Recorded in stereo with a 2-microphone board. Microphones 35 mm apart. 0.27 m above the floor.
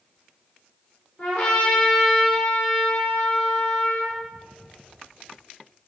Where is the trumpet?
60° left (ahead or behind), 7 m.